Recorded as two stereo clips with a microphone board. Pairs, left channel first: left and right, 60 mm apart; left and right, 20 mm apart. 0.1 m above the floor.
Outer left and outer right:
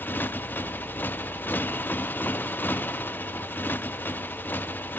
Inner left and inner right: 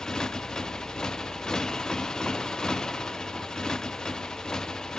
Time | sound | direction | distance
0.0 | a motorcycle | 35° left (ahead or behind) | ?